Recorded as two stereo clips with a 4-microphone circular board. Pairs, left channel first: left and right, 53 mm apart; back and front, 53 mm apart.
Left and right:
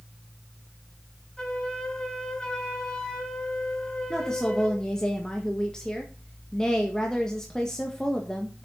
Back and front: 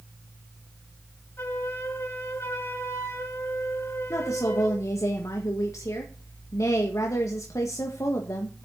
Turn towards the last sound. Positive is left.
turn(degrees=165)